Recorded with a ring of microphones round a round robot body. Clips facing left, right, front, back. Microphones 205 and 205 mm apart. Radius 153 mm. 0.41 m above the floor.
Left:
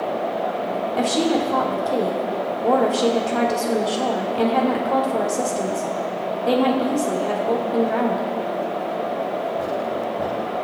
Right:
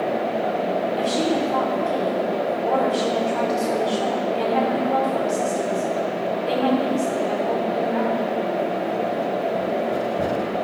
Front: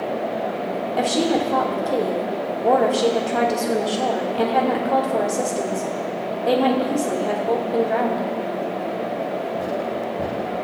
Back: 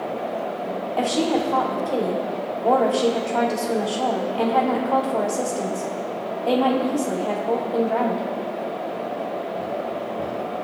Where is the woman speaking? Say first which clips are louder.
Left 5 dB, front 1 dB; 70° left, 2.5 m.